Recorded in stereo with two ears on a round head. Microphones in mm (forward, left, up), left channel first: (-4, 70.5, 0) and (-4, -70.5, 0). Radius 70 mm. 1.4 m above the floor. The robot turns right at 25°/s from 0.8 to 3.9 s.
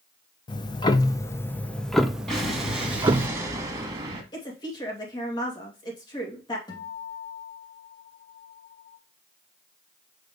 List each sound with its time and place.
0.5 s ticking: 150° left, 0.6 m; by 3.3 s 150° right, 0.6 m
2.3 s an explosion: 175° left, 1.8 m; by 4.2 s 145° right, 1.8 m
4.3 s a woman speaking: 30° left (ahead or behind), 2.5 m
6.7 s a guitar: 30° left (ahead or behind), 2.5 m